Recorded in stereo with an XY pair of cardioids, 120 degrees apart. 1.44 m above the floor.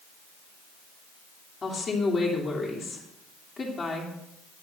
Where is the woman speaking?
30° left, 3 m.